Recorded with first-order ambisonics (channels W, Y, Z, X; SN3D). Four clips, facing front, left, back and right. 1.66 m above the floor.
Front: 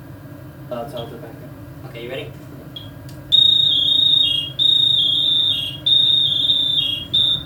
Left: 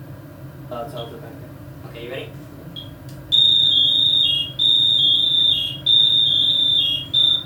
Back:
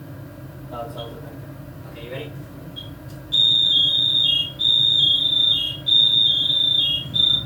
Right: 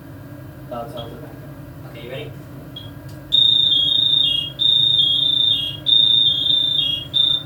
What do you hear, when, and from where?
0.7 s an alarm: 20° left, 1.2 m